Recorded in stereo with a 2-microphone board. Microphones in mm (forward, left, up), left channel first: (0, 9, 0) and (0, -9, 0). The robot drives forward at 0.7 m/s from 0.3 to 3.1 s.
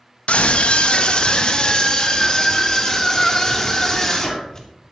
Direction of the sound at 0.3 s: 75° left (ahead or behind).